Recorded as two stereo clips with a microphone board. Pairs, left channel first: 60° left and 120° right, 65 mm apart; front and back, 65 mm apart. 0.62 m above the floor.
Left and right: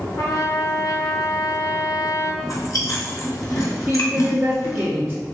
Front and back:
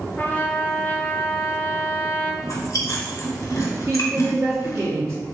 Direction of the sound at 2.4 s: 30° left.